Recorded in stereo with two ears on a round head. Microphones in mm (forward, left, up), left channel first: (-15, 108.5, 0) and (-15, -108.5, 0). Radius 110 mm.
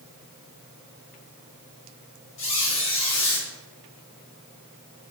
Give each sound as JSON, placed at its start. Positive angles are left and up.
{"t": 2.4, "sound": "a squeak", "side_deg": 55, "distance_m": 1.2}